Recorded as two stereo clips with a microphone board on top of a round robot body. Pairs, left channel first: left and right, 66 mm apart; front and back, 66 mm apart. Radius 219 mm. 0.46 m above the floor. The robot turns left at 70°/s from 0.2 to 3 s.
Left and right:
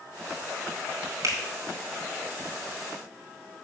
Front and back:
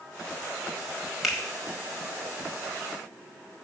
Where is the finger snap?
90° right, 1.5 m; by 1.4 s 100° right, 1.5 m.